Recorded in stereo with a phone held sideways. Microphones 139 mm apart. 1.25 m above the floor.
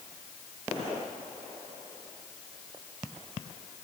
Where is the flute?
No flute in this recording.